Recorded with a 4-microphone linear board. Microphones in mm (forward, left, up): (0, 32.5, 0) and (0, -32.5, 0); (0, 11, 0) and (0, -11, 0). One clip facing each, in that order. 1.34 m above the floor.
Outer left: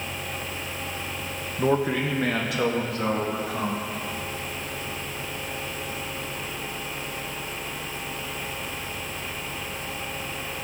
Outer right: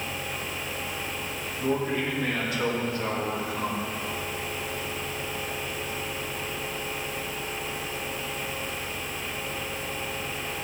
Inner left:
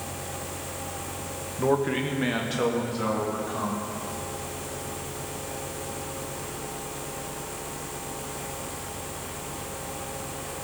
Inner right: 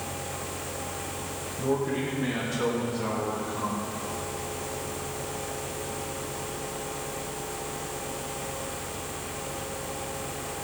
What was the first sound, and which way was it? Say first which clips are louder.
A man speaking: outer left 4 dB, inner left 3 dB; 65° left (ahead or behind).